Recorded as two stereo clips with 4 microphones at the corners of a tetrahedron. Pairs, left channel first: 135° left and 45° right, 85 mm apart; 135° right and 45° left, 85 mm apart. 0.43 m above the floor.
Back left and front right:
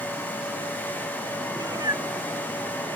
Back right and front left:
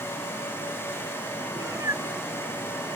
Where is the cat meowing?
5° right.